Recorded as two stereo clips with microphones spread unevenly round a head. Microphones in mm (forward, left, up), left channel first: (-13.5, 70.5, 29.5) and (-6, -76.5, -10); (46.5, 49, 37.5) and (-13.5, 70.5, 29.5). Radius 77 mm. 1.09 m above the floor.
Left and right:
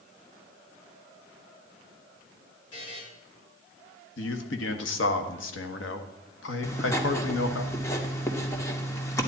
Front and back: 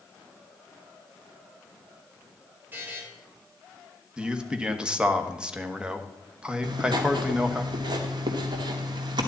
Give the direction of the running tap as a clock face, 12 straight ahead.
No running tap in this recording.